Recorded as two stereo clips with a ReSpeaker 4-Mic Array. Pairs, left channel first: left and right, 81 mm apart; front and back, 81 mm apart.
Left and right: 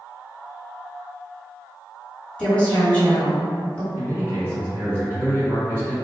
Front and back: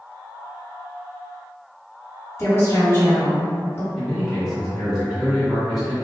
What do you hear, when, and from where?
2.4 s a woman speaking: 25° left, 1.5 m
4.0 s a man speaking: 95° right, 1.7 m